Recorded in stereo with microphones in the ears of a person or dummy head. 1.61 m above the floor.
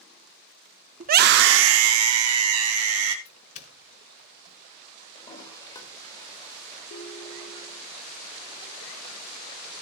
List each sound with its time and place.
1.0 s a scream: 45° right (ahead or behind), 0.7 m; by 3.1 s 80° right, 2 m
3.2 s a doorbell: 40° left (ahead or behind), 1.2 m
5.2 s a toilet flushing: 20° left (ahead or behind), 2.5 m
6.9 s a ringtone: 30° left (ahead or behind), 1.2 m